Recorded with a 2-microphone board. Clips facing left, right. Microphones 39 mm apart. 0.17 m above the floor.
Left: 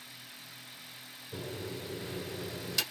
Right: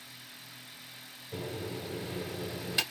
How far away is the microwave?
About 2 m.